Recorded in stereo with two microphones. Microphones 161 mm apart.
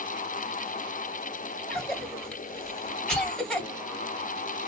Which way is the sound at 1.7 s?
5° left (ahead or behind).